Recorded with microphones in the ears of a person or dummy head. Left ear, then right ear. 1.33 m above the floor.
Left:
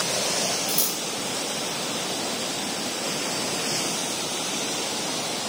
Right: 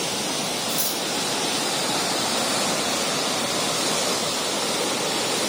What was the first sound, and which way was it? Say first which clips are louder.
Scissors: right 1 dB; 20° left (ahead or behind).